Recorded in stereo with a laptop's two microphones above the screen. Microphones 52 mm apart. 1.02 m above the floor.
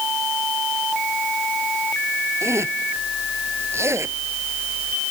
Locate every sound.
2.4 s a zipper: 65° right (ahead or behind)